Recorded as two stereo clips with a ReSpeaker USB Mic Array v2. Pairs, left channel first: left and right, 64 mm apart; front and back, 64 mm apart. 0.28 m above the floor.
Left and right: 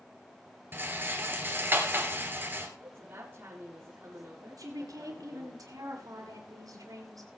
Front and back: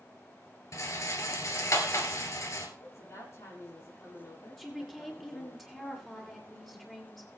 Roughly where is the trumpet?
I don't hear a trumpet.